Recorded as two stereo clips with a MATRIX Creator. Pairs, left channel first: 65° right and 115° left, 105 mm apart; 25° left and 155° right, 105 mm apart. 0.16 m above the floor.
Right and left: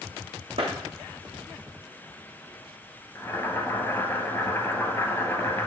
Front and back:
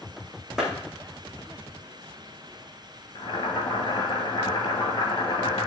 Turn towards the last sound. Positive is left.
turn(degrees=-5)